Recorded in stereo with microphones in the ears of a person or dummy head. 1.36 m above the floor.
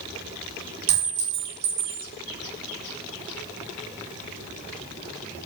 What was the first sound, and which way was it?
A clink, 50° right (ahead or behind).